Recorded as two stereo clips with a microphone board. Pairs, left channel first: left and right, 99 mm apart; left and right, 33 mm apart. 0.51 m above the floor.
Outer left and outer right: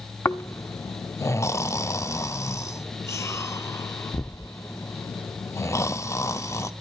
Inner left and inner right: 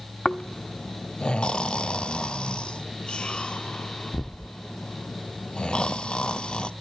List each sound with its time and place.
0.2 s snoring: 30° left (ahead or behind), 0.5 m